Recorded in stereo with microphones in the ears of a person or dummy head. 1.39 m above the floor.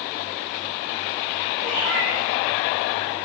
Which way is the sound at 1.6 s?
50° right (ahead or behind).